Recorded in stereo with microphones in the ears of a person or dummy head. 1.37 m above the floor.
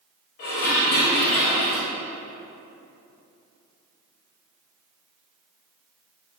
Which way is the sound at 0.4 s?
40° left (ahead or behind).